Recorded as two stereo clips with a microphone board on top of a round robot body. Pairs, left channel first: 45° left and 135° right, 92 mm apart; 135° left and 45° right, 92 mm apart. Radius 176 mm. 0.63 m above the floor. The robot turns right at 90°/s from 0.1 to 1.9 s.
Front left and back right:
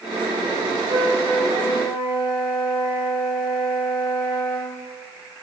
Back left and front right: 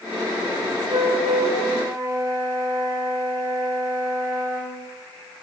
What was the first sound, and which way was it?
A flute, 75° right.